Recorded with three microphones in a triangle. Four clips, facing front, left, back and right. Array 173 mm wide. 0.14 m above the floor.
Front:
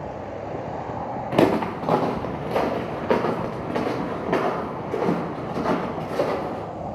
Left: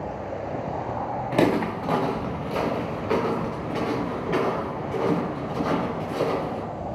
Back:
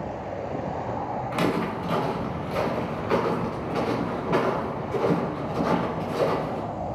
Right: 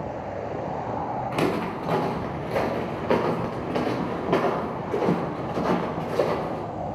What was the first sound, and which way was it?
Footsteps, 25° left.